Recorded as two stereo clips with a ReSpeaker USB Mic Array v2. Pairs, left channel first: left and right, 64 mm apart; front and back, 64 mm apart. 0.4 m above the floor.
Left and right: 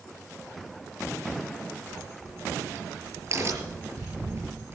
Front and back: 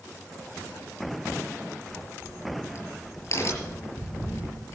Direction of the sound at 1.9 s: 45° right.